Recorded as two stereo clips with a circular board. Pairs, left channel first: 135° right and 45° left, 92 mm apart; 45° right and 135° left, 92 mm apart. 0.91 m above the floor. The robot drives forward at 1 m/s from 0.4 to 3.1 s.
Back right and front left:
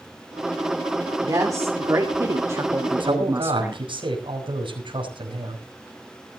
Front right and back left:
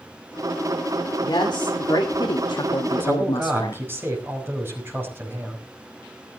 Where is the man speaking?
70° left, 5.5 m.